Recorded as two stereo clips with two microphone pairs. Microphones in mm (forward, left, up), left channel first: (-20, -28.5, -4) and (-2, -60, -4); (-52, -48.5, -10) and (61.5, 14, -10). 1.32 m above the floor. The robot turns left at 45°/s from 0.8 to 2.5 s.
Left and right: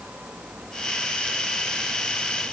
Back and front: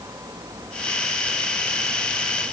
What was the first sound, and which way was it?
Only background noise.